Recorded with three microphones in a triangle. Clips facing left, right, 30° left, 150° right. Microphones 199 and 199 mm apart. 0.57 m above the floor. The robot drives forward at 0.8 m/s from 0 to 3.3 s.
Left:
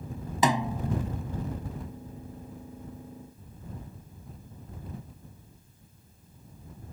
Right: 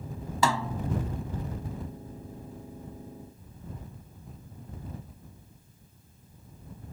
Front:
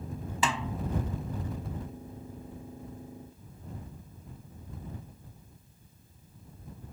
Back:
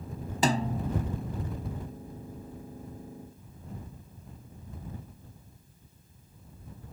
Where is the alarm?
No alarm in this recording.